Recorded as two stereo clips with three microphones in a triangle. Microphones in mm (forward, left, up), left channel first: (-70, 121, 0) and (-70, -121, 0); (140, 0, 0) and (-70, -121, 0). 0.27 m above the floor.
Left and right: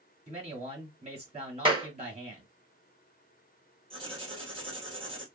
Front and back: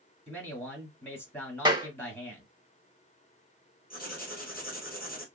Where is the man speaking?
45° right, 1.9 m.